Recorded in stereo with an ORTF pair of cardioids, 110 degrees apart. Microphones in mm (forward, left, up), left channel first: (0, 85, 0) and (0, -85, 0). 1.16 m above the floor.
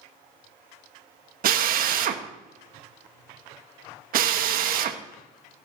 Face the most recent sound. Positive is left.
turn(degrees=-60)